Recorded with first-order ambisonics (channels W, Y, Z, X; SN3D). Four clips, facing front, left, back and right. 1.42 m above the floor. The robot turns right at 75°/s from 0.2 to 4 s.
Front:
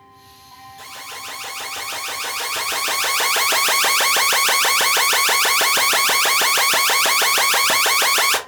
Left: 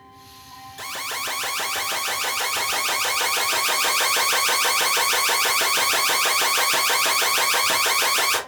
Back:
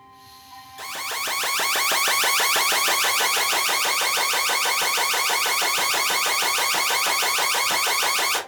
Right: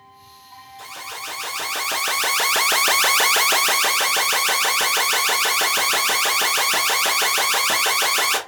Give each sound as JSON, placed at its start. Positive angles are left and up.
{"t": 0.8, "sound": "an alarm", "azimuth_deg": 110, "distance_m": 0.8}